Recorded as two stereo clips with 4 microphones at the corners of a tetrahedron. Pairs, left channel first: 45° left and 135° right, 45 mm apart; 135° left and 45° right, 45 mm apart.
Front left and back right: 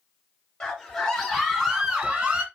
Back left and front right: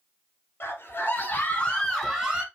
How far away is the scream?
About 2 m.